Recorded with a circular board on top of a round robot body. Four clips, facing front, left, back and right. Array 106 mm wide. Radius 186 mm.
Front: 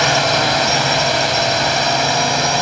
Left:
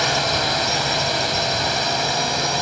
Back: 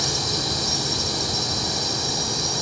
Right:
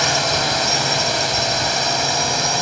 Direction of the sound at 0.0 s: 5° right.